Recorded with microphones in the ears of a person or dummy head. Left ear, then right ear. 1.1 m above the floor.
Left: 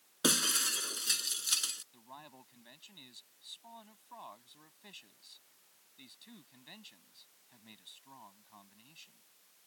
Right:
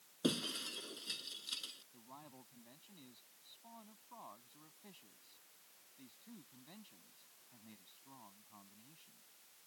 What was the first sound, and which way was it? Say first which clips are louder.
Breaking glass: left 9 dB; 60° left (ahead or behind).